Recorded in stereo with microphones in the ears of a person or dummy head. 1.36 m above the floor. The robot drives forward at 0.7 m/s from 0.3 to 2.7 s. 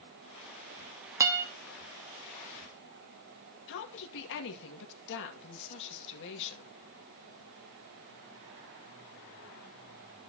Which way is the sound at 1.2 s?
15° right (ahead or behind).